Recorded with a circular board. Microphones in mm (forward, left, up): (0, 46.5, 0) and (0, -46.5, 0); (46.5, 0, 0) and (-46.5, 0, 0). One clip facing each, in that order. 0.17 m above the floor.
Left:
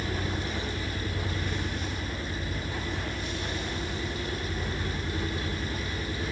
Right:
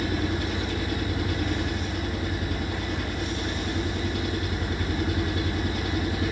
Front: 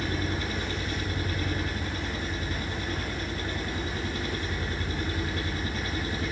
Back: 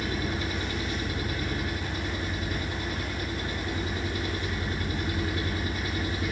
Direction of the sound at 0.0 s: 100° right.